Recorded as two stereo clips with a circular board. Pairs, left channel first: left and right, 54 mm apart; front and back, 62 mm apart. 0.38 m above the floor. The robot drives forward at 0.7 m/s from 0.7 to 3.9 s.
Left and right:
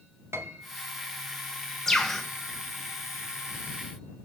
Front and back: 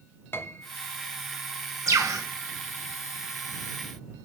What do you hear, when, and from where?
0.3 s a piano: 55° right, 0.8 m
1.9 s a bird: 175° left, 1.5 m